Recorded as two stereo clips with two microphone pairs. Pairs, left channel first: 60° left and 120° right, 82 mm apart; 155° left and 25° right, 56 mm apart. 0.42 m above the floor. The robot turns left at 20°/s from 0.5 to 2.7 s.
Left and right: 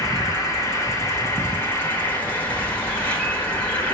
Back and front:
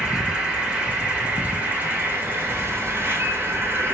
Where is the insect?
35° left, 1.7 m; by 3.9 s 10° right, 1.7 m.